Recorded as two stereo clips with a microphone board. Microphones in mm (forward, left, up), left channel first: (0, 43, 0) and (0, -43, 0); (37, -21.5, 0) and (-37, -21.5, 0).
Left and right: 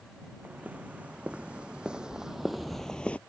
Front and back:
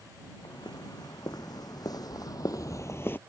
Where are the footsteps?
20° right; by 3.2 s 35° left.